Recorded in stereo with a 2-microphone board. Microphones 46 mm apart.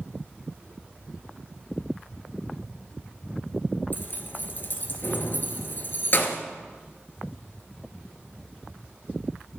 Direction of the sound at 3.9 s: 45° left (ahead or behind).